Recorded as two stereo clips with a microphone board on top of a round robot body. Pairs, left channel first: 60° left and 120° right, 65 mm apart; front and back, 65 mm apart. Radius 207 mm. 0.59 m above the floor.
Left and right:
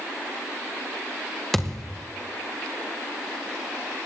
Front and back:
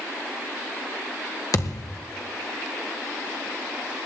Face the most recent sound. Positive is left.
turn(degrees=-25)